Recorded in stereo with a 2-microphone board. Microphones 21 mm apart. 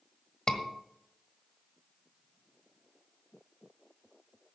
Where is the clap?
I don't hear a clap.